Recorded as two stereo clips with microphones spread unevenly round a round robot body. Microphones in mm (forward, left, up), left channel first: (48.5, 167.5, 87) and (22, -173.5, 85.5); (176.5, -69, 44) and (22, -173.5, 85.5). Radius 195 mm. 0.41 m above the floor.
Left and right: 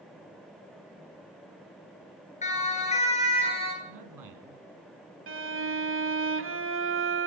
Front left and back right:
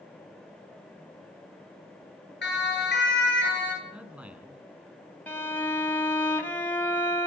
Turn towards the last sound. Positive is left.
turn(degrees=-45)